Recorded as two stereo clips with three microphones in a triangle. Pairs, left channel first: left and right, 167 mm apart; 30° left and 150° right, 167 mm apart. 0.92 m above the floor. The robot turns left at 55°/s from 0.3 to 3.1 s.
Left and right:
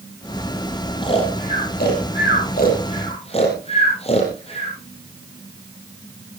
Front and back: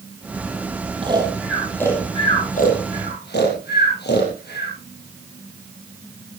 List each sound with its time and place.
1.0 s snoring: 150° left, 6 m; by 4.7 s 40° left, 6 m